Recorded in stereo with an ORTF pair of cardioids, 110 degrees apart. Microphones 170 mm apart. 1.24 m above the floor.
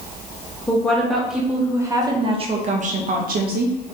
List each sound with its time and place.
0.7 s a woman speaking: 10° left, 1.2 m; by 3.8 s 75° right, 1.1 m